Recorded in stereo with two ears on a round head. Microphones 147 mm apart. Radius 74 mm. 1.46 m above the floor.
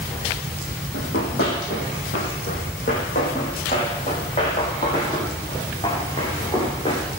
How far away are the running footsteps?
About 5 m.